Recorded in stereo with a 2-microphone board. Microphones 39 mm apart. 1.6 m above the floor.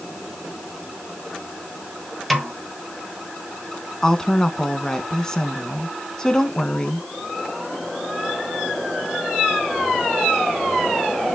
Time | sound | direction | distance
2.3 | a snare drum | centre (ahead or behind) | 2 m
4.0 | a woman speaking | 15° left (ahead or behind) | 1.5 m